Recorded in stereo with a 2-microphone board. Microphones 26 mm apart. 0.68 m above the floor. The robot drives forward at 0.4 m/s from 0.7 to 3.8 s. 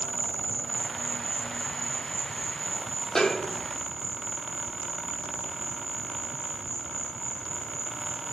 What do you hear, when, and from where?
0.0 s an insect: 5° left (ahead or behind), 1.6 m; by 8.3 s centre (ahead or behind), 3 m
3.1 s a snare drum: 25° left (ahead or behind), 0.8 m; by 3.7 s 20° left (ahead or behind), 1.0 m